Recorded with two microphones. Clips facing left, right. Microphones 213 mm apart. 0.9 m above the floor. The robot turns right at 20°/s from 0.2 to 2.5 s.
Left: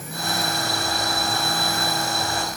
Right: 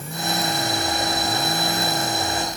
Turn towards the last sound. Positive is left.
No sound to turn to.